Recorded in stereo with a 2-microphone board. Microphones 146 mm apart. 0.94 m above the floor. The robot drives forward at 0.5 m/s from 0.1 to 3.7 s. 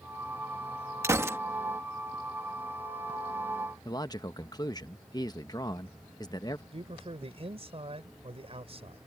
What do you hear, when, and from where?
1.0 s a gunshot: 20° right (ahead or behind); by 1.4 s 15° right (ahead or behind)
3.9 s a man speaking: 25° left (ahead or behind)
6.7 s a man speaking: 45° right (ahead or behind)